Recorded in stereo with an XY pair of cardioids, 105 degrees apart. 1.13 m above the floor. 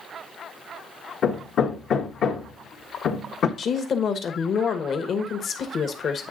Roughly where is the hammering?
Ahead left.